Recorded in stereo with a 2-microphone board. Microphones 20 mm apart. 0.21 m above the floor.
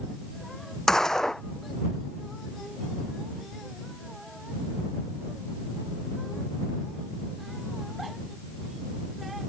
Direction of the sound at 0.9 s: 25° left (ahead or behind).